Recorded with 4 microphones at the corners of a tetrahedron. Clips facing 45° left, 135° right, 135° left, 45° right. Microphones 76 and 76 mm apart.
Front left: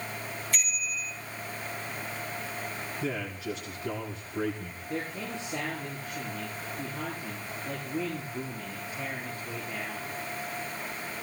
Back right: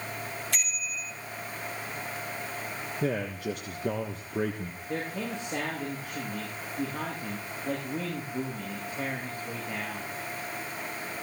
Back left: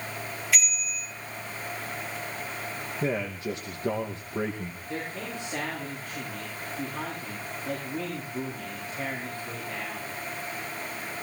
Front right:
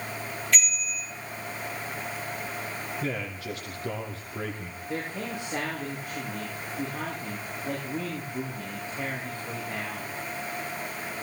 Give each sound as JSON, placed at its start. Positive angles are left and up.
{"t": 0.5, "sound": "a bicycle bell", "azimuth_deg": -140, "distance_m": 7.5}
{"t": 3.0, "sound": "a man speaking", "azimuth_deg": -165, "distance_m": 2.5}
{"t": 4.9, "sound": "a man speaking", "azimuth_deg": -120, "distance_m": 10.0}